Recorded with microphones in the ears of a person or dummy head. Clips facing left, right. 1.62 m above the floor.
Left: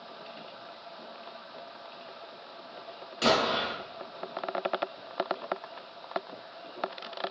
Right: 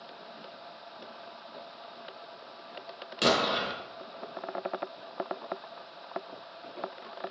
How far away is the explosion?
About 0.9 m.